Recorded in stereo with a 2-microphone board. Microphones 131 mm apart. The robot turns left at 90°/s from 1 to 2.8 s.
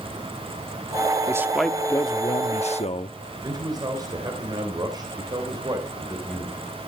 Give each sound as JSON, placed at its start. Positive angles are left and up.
{"t": 1.3, "sound": "a man speaking", "azimuth_deg": -150, "distance_m": 0.9}
{"t": 3.4, "sound": "a man speaking", "side_deg": -30, "distance_m": 3.0}